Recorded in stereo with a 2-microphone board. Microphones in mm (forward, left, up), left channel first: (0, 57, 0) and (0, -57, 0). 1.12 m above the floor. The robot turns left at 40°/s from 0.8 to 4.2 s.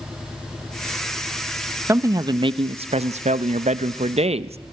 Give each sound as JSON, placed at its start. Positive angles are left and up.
{"t": 1.9, "sound": "a man speaking", "azimuth_deg": -25, "distance_m": 0.7}